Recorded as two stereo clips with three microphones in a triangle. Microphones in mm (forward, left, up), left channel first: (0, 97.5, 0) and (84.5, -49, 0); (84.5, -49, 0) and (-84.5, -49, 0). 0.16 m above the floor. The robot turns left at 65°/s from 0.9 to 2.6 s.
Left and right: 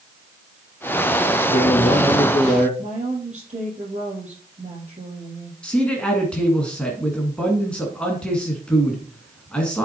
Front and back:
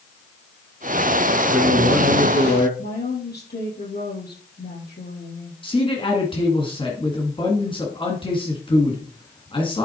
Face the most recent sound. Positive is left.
turn(degrees=40)